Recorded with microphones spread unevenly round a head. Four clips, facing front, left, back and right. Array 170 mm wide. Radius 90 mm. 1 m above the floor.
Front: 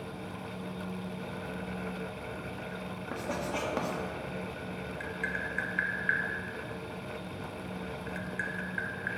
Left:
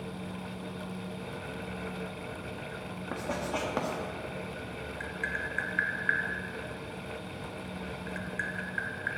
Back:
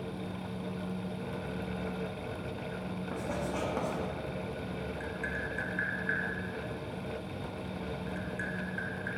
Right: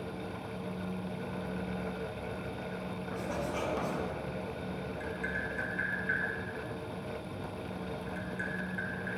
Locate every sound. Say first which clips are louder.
3.1 s writing: left 3 dB, front 1 dB; 55° left, 1.5 m
5.0 s tapping: left 3 dB, front 1 dB; 65° left, 1.2 m